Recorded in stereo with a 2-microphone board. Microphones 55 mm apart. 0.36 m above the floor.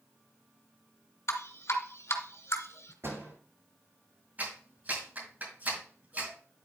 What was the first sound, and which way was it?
Dripping, 70° left (ahead or behind).